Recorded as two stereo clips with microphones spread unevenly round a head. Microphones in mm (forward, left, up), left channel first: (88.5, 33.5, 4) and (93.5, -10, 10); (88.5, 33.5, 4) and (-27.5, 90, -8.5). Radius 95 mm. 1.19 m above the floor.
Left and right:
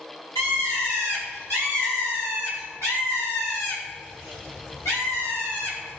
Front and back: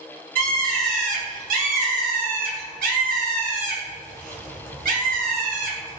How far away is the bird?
About 3 m.